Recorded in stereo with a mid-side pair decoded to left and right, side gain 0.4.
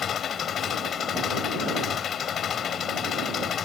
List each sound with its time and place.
0.0 s an engine running: 60° left